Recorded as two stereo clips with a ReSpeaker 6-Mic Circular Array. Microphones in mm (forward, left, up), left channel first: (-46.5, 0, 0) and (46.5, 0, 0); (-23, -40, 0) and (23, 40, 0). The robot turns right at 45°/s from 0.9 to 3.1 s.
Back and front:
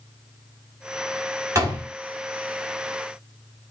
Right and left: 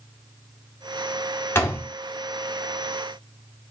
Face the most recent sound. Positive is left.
turn(degrees=15)